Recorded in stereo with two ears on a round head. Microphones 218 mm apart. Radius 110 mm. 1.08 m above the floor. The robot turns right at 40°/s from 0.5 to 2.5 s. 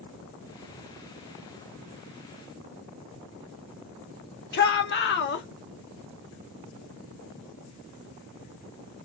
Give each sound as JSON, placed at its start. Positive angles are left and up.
{"t": 4.5, "sound": "a shout", "side_deg": 45, "distance_m": 1.0}